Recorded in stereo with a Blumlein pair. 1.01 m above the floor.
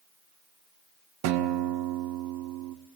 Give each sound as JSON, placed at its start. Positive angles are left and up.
{"t": 1.2, "sound": "a guitar", "azimuth_deg": -45, "distance_m": 1.4}